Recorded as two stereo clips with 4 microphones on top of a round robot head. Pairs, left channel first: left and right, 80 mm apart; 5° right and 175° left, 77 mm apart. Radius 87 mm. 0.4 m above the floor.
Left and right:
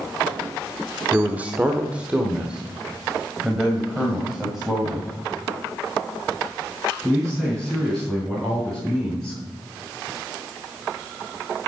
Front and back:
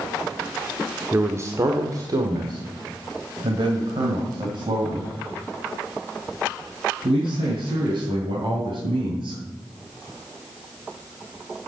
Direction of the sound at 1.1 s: 145° right.